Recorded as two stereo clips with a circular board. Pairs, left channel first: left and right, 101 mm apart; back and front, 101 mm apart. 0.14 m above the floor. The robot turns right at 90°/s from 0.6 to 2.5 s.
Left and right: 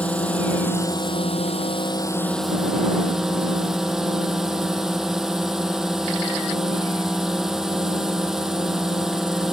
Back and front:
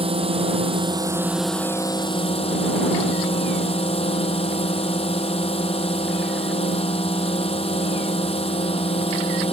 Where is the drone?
15° left; by 9.5 s 175° right.